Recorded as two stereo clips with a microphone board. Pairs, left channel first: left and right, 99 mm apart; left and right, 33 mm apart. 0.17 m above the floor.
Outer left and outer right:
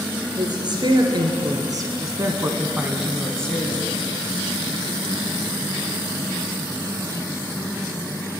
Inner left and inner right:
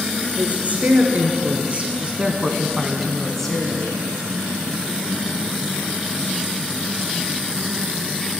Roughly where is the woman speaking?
Right.